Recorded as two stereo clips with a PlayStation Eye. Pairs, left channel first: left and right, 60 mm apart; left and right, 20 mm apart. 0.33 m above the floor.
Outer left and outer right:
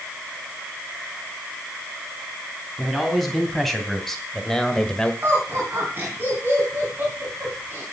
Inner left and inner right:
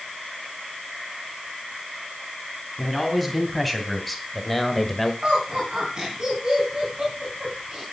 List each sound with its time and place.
2.8 s a man speaking: centre (ahead or behind), 3.5 m; by 5.1 s 15° left (ahead or behind), 1.4 m
5.2 s laughter: 35° right (ahead or behind), 3.5 m